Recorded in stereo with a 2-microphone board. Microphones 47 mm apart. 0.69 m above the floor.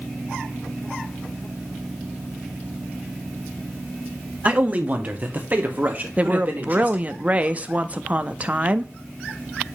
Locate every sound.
4.5 s a man speaking: 30° right (ahead or behind), 1.1 m; by 7.1 s 40° right (ahead or behind), 2.5 m
6.2 s a woman speaking: 30° right (ahead or behind), 0.5 m